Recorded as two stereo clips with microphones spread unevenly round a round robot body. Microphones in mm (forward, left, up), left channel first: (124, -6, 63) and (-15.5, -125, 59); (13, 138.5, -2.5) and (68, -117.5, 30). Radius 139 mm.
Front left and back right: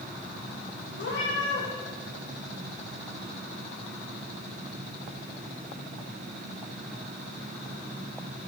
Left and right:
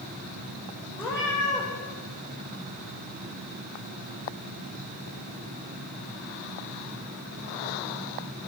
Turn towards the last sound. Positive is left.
turn(degrees=20)